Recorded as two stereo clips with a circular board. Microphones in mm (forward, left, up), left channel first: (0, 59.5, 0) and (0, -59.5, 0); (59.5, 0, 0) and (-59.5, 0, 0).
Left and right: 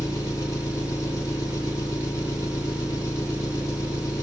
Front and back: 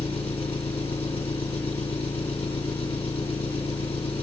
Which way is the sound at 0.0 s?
30° left.